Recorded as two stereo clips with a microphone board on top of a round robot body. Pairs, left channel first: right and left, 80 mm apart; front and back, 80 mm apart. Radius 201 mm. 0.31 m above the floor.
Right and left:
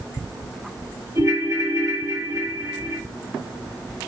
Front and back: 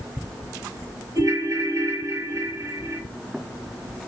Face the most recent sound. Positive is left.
turn(degrees=130)